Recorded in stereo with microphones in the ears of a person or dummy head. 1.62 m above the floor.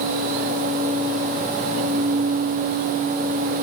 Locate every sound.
Only background noise.